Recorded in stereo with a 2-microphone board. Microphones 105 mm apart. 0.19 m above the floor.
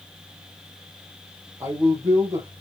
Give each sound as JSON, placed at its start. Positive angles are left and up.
{"t": 1.6, "sound": "a man speaking", "side_deg": -30, "distance_m": 4.0}